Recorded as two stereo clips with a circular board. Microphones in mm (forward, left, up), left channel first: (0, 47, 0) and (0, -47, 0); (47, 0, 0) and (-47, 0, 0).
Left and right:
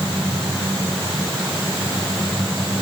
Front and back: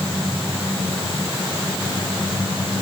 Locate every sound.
Only background noise.